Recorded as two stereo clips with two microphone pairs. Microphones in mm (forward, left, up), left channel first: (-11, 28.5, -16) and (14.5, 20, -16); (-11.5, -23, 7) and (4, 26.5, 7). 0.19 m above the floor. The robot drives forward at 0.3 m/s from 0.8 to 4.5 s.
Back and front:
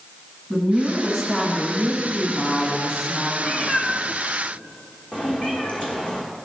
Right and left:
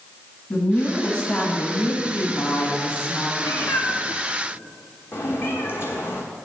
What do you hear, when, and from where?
0.5 s a woman speaking: 75° right, 1.1 m; by 3.3 s 145° right, 1.2 m
3.4 s a cat meowing: 145° right, 1.1 m; by 6.2 s 155° right, 1.3 m